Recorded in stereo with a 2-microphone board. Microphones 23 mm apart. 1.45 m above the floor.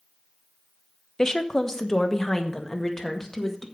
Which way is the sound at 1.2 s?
25° left (ahead or behind).